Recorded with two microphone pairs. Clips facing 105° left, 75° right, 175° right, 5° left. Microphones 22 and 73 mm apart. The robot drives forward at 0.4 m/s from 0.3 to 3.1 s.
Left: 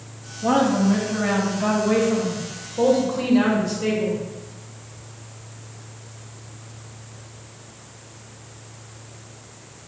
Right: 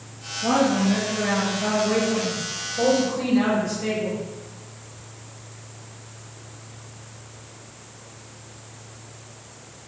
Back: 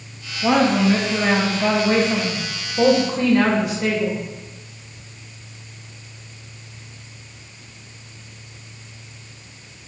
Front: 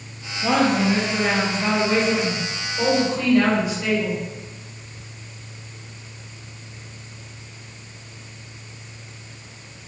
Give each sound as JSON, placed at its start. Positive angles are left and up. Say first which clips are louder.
{"t": 0.4, "sound": "a woman speaking", "louder": "left 2 dB, back 2 dB", "azimuth_deg": 155, "distance_m": 0.7}